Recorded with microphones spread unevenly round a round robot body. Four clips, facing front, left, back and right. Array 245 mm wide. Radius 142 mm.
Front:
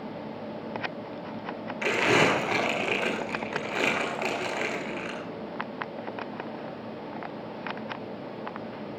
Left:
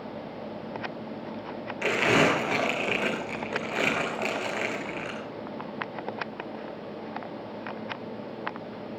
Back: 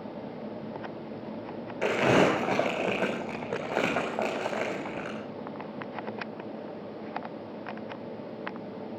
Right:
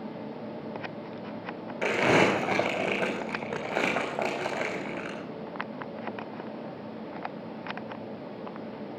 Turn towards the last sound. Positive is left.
turn(degrees=-145)